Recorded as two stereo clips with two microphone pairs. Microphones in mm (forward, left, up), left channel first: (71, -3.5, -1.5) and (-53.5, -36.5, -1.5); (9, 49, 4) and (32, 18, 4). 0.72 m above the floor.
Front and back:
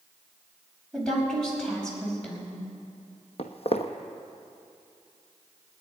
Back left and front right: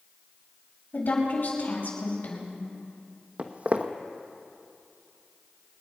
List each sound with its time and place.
0.9 s a woman speaking: 100° left, 5.5 m
3.4 s footsteps: 10° right, 1.3 m